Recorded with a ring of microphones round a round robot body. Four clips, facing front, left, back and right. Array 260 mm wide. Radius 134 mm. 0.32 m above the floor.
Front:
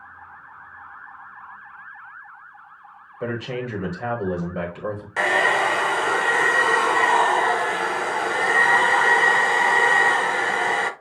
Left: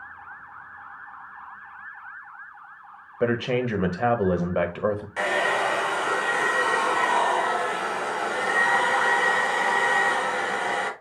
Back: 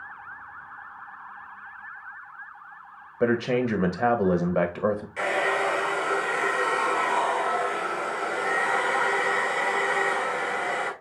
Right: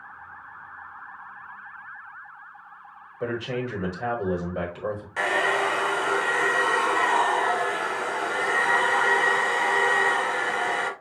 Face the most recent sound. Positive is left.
turn(degrees=0)